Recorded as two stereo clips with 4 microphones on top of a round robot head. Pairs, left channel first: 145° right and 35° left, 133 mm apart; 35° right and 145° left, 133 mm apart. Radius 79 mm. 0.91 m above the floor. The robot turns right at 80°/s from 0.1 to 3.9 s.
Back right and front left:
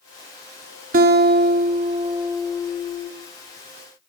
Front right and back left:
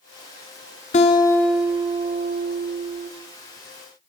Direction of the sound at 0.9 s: 5° left.